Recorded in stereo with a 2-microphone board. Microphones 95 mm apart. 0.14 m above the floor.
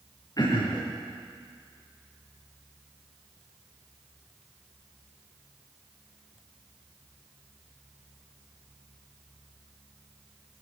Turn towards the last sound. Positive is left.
turn(degrees=40)  # may be behind; listen again after turning